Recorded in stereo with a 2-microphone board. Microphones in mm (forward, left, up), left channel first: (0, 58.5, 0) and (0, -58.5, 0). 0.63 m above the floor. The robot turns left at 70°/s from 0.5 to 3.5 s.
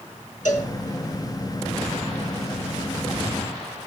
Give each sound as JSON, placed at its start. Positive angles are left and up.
{"t": 0.5, "sound": "a cowbell", "side_deg": 85, "distance_m": 3.5}